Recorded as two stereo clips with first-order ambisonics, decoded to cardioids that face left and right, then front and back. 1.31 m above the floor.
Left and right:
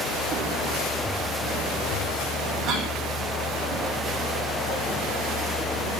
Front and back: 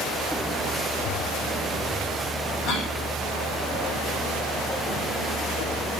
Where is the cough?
25° right, 9.5 m.